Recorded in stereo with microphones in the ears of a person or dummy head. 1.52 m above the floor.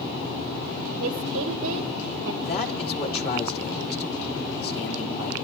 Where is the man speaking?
60° left (ahead or behind), 4 m.